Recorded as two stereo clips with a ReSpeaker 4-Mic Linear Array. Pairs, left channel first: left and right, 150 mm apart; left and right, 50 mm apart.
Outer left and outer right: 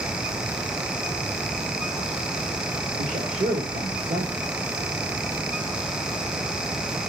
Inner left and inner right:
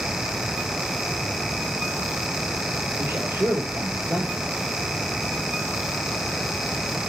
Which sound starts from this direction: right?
A man speaking, at 3.0 s.